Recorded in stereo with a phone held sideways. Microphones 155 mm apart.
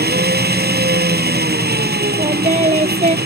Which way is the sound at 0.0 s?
85° right.